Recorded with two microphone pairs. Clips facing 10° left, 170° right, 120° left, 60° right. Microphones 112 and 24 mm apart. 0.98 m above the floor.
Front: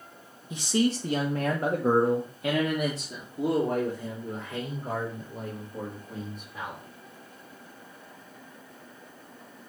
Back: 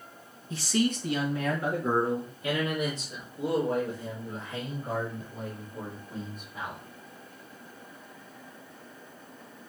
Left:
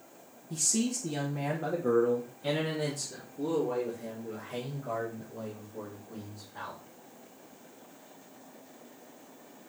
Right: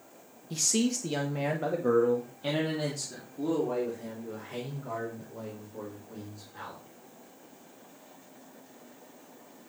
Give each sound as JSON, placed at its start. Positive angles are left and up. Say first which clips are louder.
{"t": 0.5, "sound": "a man speaking", "louder": "front 2 dB, right 2 dB", "azimuth_deg": -60, "distance_m": 1.2}